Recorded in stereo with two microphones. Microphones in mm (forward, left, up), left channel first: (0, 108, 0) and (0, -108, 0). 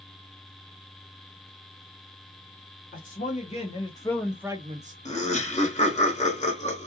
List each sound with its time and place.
2.9 s a man speaking: 40° left (ahead or behind), 1.0 m; by 5.0 s 40° right (ahead or behind), 0.5 m
5.0 s laughter: 30° left (ahead or behind), 1.2 m